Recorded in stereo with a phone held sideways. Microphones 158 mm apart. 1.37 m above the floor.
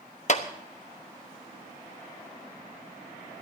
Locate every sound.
0.3 s a clap: 50° left (ahead or behind), 1.1 m